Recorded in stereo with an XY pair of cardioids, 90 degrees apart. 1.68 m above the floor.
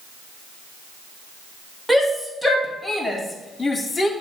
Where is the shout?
Straight ahead, 3 m; by 4.1 s 25° left, 1.7 m.